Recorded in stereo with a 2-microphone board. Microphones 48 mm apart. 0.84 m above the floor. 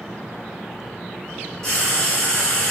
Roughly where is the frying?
Centre.